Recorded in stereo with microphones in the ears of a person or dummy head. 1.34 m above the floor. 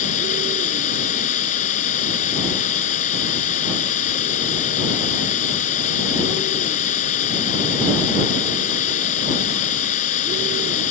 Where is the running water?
45° left (ahead or behind).